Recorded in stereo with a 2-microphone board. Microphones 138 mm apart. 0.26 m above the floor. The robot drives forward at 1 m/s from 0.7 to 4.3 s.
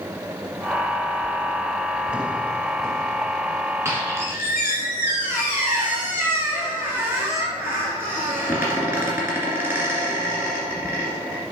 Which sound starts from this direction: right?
A squeak, at 3.9 s.